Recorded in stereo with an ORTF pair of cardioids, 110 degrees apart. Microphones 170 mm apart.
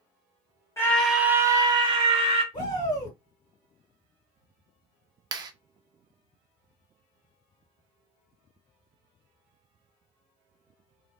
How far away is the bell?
I don't hear a bell.